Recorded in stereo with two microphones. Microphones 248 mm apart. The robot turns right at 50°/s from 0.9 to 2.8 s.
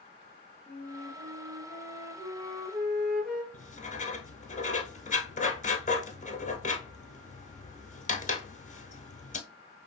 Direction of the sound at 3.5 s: 35° left (ahead or behind).